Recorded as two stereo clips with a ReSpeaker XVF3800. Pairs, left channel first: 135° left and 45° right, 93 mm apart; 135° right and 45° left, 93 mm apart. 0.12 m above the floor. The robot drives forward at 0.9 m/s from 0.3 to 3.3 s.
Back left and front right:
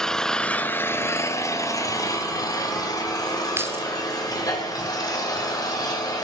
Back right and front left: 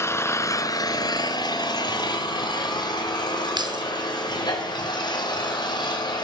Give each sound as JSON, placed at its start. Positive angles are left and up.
{"t": 0.0, "sound": "an engine running", "azimuth_deg": -150, "distance_m": 0.8}
{"t": 3.6, "sound": "keys jangling", "azimuth_deg": 15, "distance_m": 1.5}